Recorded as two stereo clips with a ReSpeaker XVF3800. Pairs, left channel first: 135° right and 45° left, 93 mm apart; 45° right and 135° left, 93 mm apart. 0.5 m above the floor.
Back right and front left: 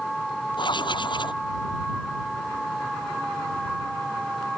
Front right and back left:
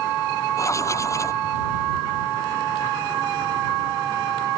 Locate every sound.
0.6 s writing: 105° right